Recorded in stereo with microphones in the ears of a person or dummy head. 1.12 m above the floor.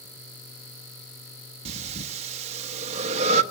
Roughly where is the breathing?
Right.